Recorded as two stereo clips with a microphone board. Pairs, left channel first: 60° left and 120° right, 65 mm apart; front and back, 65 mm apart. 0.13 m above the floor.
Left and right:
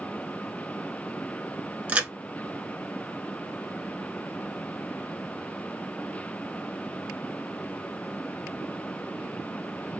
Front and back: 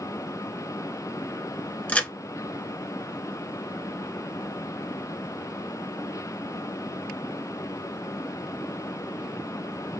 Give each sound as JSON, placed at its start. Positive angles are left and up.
{"t": 1.9, "sound": "a crack", "azimuth_deg": -60, "distance_m": 0.8}